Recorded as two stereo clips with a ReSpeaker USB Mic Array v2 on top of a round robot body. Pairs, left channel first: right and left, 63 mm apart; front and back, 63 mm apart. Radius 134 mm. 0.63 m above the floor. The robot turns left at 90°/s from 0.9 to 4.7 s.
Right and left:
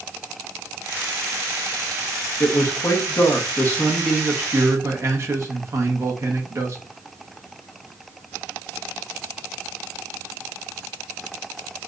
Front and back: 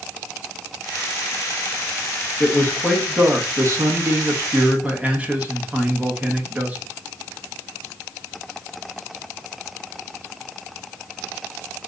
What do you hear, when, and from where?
2.4 s a man speaking: 35° right, 1.1 m; by 6.8 s 120° left, 1.1 m